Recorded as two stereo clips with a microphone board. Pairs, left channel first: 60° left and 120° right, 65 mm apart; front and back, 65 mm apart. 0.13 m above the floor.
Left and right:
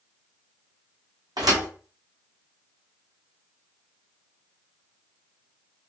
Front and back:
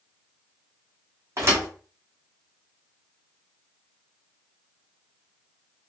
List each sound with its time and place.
1.4 s a thud: 130° right, 1.8 m